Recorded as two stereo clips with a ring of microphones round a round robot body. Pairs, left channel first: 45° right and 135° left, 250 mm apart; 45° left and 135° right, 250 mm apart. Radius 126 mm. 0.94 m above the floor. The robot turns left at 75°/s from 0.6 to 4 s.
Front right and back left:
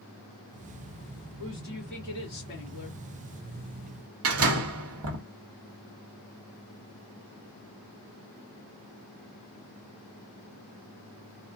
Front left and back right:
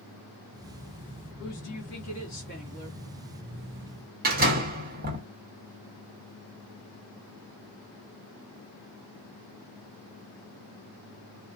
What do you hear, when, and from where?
1.4 s a woman speaking: 80° left, 2 m; by 3.0 s 45° right, 2 m
4.2 s a door slam: 170° left, 1.3 m